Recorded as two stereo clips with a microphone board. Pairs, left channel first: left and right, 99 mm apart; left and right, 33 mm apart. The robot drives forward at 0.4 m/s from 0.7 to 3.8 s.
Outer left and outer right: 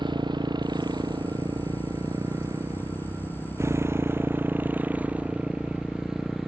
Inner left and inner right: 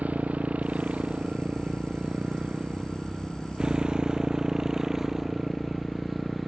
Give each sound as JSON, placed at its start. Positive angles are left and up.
{"t": 0.0, "sound": "a motorcycle", "side_deg": -50}